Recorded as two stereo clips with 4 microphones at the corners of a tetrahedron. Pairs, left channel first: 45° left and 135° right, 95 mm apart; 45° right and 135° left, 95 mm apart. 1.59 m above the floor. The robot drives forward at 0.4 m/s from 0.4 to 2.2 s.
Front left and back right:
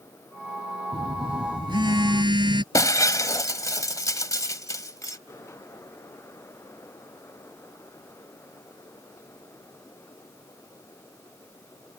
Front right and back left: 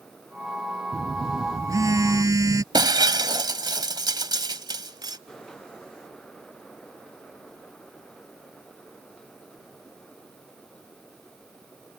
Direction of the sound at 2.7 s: 95° left.